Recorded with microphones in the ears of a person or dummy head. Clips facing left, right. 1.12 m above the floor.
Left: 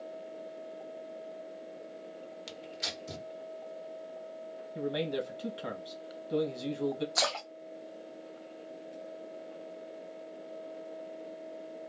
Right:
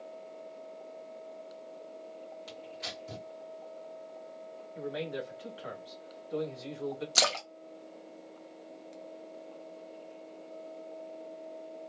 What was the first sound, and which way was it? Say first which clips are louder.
Tearing paper: left 1 dB; 35° left (ahead or behind).